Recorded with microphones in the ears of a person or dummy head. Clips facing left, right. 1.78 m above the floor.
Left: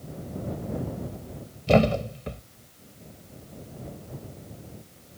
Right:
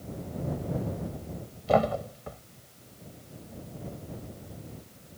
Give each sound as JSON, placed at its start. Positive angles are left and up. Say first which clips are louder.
{"t": 1.7, "sound": "a thud", "louder": "left 4 dB", "side_deg": 40}